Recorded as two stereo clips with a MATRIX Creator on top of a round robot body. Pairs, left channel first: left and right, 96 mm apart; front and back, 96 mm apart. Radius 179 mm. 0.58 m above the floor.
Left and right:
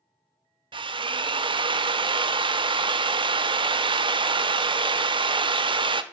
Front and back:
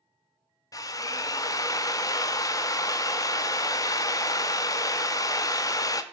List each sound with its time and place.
0.7 s a drill: 55° right, 0.5 m